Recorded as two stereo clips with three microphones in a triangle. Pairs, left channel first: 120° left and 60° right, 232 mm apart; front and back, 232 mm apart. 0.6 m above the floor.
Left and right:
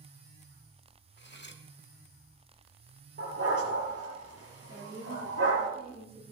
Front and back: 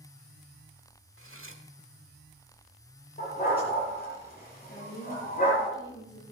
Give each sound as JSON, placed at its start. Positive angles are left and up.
{"t": 1.2, "sound": "cutlery clinking", "azimuth_deg": 160, "distance_m": 1.1}
{"t": 3.2, "sound": "a dog barking", "azimuth_deg": -50, "distance_m": 6.0}
{"t": 4.7, "sound": "a woman speaking", "azimuth_deg": 15, "distance_m": 8.5}